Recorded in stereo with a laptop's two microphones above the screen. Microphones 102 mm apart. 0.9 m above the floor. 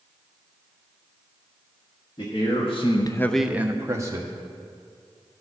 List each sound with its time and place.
2.2 s a man speaking: 60° left (ahead or behind), 1.5 m; by 4.3 s 35° right (ahead or behind), 1.8 m